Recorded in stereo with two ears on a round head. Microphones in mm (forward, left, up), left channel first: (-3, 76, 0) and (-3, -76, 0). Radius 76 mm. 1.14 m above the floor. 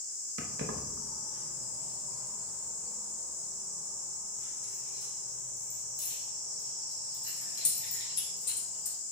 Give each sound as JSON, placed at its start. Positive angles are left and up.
{"t": 0.4, "sound": "keys jangling", "side_deg": -60, "distance_m": 1.0}